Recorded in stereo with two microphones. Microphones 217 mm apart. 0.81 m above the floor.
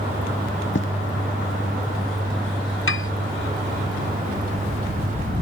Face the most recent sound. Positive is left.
turn(degrees=70)  # may be behind; listen again after turning